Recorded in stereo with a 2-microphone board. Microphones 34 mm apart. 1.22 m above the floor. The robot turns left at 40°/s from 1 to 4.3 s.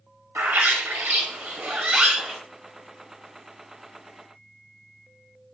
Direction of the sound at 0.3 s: 110° right.